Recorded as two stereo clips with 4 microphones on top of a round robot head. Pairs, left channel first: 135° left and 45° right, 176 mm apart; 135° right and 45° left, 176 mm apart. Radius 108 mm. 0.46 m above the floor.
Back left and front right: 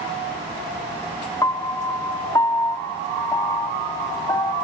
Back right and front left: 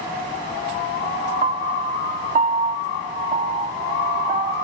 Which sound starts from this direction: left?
A piano, at 1.4 s.